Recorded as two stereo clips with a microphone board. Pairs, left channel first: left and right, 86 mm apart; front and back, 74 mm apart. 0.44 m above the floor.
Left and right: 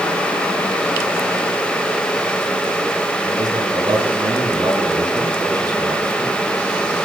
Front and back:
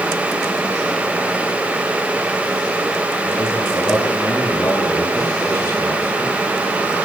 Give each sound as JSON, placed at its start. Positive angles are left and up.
{"t": 3.2, "sound": "a man speaking", "azimuth_deg": -55, "distance_m": 5.0}